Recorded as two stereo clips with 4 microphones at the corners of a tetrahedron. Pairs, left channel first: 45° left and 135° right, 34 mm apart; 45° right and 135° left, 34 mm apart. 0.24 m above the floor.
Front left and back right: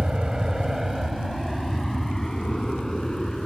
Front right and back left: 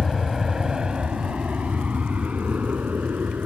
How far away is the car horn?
No car horn in this recording.